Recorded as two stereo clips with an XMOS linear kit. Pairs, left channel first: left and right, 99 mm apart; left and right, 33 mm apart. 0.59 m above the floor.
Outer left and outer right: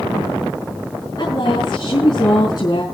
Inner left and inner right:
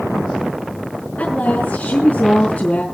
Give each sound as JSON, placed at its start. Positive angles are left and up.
{"t": 1.2, "sound": "a woman speaking", "side_deg": 45, "distance_m": 6.0}